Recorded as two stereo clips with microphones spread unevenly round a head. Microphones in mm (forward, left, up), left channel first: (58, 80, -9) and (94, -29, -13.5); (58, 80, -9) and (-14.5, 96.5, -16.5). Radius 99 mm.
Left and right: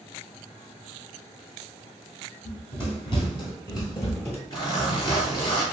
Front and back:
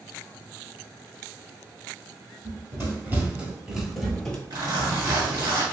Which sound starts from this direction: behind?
A zipper, at 4.5 s.